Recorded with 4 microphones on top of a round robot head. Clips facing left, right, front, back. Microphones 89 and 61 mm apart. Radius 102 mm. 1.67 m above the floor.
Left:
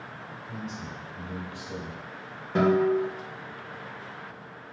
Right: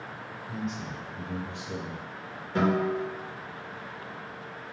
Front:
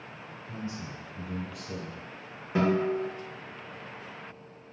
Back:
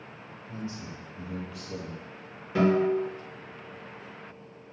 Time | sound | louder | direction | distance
0.5 | a man speaking | right 4 dB, even | 15° right | 1.2 m
2.5 | a guitar | left 4 dB, back 3 dB | 65° left | 0.9 m